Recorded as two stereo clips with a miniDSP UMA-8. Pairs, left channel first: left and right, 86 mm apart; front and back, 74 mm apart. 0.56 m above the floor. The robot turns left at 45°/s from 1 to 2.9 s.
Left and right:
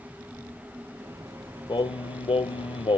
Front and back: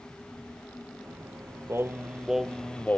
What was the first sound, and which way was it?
Singing, 125° left.